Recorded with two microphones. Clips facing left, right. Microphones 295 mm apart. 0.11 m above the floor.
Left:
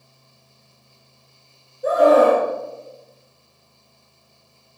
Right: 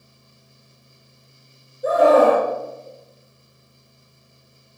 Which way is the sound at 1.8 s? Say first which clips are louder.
Even; centre (ahead or behind).